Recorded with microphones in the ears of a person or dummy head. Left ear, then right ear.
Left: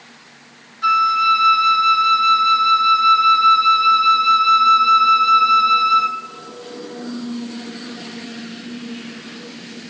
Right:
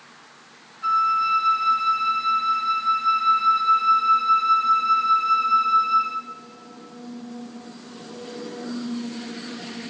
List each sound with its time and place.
0.8 s a flute: 40° left (ahead or behind), 0.8 m